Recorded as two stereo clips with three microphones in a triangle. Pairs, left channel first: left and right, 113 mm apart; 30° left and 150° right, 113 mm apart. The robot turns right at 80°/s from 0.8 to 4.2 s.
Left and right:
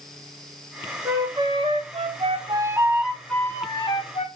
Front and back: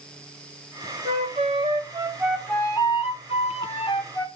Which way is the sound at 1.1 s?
165° right.